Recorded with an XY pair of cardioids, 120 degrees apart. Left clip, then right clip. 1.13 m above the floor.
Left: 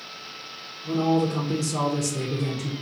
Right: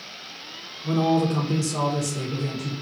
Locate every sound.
0.8 s a man speaking: 35° right, 0.7 m; by 2.7 s 45° left, 0.8 m